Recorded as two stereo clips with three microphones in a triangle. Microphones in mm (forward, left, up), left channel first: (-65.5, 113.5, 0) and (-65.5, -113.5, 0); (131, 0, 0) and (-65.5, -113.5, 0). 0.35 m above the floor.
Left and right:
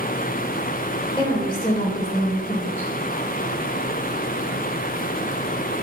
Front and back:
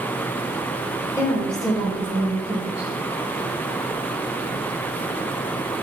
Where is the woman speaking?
70° left, 0.8 m; by 2.9 s 165° left, 1.2 m.